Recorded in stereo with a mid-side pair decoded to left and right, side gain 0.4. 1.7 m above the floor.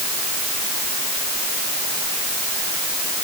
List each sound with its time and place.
Only background noise.